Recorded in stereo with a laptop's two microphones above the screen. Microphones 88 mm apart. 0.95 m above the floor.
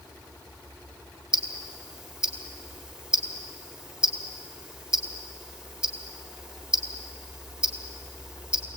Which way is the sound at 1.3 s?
15° right (ahead or behind).